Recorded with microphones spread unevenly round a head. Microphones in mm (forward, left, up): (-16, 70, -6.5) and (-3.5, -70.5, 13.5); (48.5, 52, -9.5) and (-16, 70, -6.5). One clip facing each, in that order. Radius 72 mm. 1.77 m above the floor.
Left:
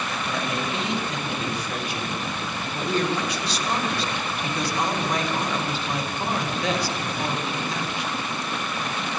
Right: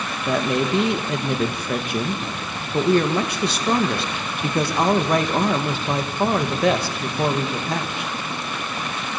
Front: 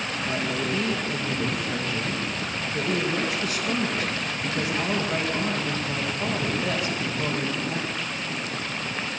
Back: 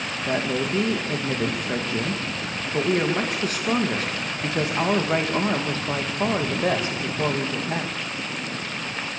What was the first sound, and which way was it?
A woman speaking, 125° right.